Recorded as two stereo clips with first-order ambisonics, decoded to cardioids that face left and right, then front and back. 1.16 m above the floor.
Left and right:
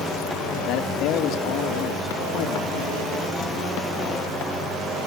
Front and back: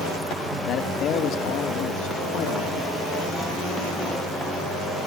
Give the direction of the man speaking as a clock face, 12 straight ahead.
10 o'clock.